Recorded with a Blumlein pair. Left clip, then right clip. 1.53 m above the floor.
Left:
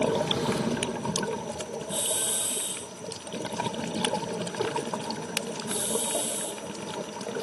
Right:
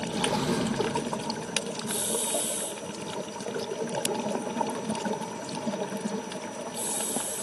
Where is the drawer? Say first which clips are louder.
Left 1 dB; 10° right, 3 m.